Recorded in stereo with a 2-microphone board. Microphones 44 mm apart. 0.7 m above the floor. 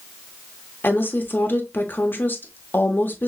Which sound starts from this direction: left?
A woman speaking, at 0.8 s.